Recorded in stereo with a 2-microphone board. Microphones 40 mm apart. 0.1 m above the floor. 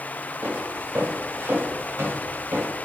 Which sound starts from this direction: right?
Footsteps, at 0.4 s.